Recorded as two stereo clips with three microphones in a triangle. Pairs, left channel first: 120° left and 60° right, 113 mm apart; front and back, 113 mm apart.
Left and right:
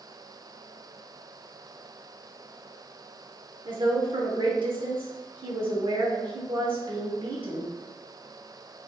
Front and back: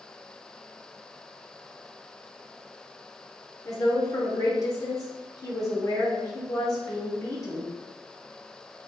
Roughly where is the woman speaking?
Ahead right.